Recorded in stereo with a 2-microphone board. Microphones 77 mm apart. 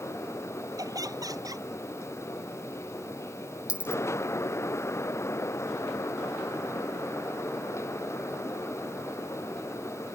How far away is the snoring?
No snoring in this recording.